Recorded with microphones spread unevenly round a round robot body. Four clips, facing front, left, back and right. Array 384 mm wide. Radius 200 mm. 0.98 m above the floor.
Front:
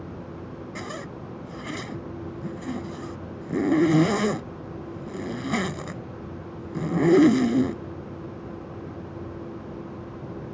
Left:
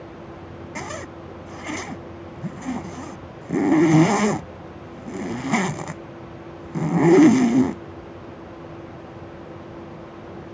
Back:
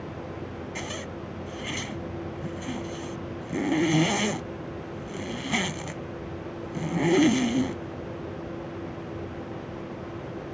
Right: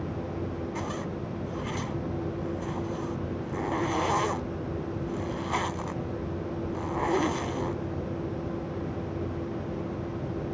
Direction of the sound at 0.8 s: 80° left.